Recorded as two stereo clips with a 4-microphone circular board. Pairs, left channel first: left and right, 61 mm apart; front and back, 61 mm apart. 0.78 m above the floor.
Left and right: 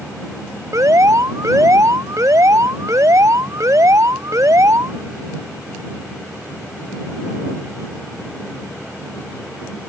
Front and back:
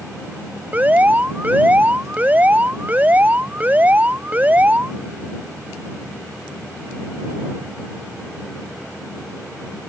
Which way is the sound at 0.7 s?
120° right.